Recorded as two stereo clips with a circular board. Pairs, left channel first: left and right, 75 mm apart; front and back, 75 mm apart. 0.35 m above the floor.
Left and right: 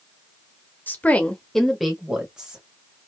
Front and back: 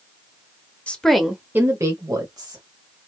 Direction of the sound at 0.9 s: 55° left.